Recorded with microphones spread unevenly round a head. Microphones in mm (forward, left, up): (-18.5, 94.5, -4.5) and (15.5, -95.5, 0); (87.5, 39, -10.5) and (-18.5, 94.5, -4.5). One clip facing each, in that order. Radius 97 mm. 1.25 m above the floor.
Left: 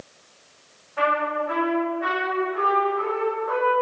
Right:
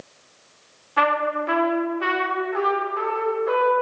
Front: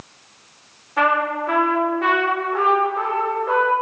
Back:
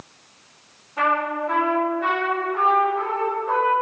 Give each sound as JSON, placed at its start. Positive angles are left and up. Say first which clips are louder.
{"t": 1.0, "sound": "a trumpet", "louder": "right 1 dB, front 3 dB", "azimuth_deg": -85, "distance_m": 4.0}